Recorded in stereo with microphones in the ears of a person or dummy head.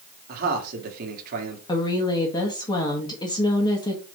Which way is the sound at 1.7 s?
20° left (ahead or behind).